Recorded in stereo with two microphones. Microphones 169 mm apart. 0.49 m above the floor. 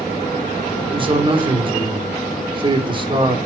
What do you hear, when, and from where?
0.9 s a man speaking: 30° right (ahead or behind), 1.2 m